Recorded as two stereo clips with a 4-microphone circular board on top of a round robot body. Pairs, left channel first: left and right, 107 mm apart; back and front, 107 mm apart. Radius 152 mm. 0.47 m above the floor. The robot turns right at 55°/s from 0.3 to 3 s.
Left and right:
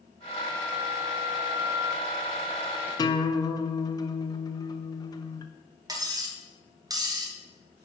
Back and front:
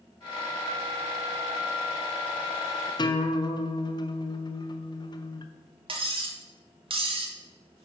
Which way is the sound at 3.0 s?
135° left.